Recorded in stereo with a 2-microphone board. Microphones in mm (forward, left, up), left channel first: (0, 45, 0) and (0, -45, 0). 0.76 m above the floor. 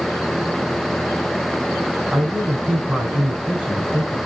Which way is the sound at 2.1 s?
15° right (ahead or behind).